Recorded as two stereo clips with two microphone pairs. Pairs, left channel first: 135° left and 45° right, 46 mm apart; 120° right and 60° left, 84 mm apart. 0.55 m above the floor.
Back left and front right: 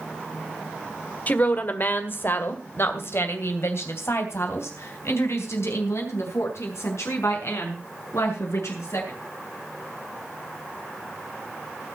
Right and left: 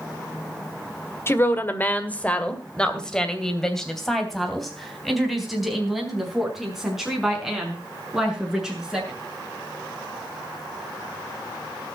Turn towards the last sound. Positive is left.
turn(degrees=140)